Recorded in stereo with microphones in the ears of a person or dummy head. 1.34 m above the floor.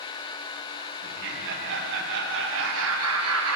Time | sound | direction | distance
1.0 | laughter | 55° right (ahead or behind) | 2 m